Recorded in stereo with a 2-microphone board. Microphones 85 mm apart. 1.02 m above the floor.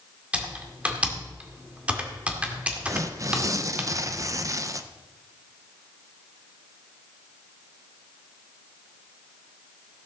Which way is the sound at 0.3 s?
15° right (ahead or behind).